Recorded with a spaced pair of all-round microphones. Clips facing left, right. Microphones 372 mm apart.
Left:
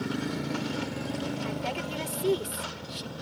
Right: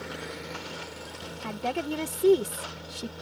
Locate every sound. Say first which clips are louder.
0.0 s a motorcycle: left 8 dB; 55° left (ahead or behind); by 3.2 s 85° left
1.4 s a woman speaking: right 2 dB; 60° right (ahead or behind)